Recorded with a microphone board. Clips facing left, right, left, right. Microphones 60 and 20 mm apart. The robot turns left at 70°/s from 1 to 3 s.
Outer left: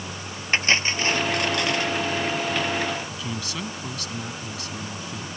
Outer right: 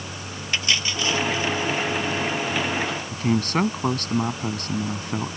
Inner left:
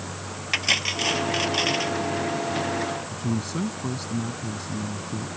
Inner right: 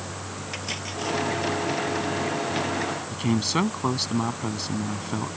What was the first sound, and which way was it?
Cutlery clinking, 140° left.